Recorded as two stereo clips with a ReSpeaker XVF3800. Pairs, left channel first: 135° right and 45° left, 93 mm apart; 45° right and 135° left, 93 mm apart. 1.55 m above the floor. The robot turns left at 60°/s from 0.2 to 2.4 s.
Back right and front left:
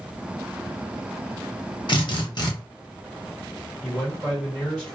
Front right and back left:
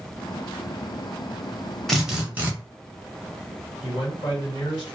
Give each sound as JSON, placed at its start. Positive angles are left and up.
{"t": 1.9, "sound": "a drill", "azimuth_deg": -130, "distance_m": 0.9}
{"t": 3.8, "sound": "a man speaking", "azimuth_deg": -65, "distance_m": 1.4}